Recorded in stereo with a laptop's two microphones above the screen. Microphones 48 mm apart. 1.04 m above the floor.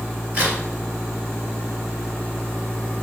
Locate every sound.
0.3 s a crack: 35° right (ahead or behind), 1.7 m